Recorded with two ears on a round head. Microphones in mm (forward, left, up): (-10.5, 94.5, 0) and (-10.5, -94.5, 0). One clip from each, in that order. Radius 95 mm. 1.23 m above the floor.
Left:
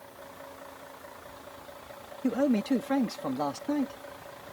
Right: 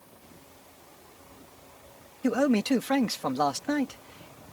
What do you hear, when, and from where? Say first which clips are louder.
2.2 s a man speaking: right 2 dB; 45° right (ahead or behind)